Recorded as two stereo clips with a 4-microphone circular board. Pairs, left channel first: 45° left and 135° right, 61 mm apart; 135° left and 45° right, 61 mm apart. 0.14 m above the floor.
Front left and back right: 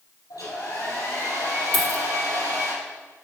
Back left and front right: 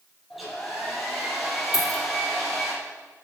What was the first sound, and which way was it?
A hair dryer, 45° left.